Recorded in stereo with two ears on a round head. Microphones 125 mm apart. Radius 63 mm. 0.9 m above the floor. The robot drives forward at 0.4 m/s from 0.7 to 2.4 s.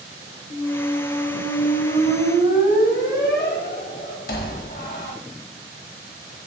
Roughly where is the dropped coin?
I don't hear a dropped coin.